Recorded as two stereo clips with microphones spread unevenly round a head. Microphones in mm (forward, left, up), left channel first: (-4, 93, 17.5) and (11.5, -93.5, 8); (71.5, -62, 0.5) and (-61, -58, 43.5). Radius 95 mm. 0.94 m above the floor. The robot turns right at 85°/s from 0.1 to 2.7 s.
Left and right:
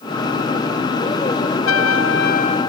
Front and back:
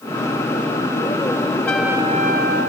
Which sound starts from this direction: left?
A trumpet, at 1.7 s.